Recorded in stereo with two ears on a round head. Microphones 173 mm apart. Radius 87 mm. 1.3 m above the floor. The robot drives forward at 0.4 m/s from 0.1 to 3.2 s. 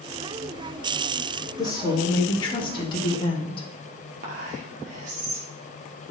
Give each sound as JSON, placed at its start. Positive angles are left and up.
{"t": 1.6, "sound": "a woman speaking", "side_deg": 20, "distance_m": 2.5}
{"t": 4.2, "sound": "whispering", "side_deg": -45, "distance_m": 1.2}